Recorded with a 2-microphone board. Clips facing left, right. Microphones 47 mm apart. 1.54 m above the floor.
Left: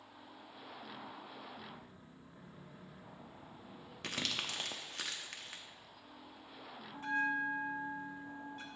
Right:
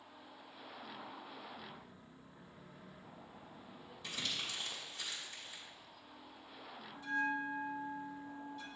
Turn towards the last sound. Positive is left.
turn(degrees=45)  # may be behind; listen again after turning